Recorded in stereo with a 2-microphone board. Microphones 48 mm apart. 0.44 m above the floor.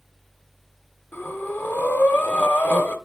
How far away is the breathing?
About 0.9 m.